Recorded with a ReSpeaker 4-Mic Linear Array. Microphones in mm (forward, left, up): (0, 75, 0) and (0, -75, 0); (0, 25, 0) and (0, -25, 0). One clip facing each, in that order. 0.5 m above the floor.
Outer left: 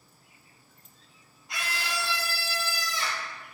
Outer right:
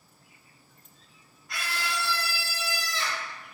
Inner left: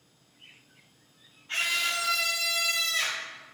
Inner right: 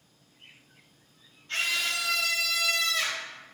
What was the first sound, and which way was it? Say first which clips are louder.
A scream: outer right 1 dB, inner left 1 dB; 20° left (ahead or behind).